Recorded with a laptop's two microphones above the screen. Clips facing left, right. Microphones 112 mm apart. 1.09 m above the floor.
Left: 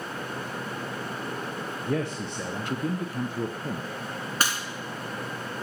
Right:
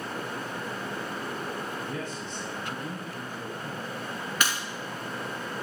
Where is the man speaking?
65° left (ahead or behind), 0.6 m.